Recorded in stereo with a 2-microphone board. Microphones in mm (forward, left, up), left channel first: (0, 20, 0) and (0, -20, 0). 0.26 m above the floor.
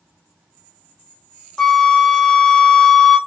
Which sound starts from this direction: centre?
A flute, at 1.6 s.